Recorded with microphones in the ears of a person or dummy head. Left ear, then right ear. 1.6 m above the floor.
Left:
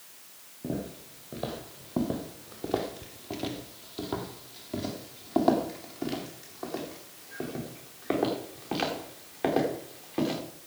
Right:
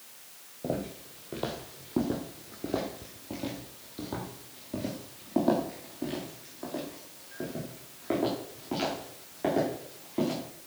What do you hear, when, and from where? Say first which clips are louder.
0.6 s footsteps: right 2 dB; 20° right (ahead or behind), 2.0 m; by 10.4 s 30° left (ahead or behind), 6.5 m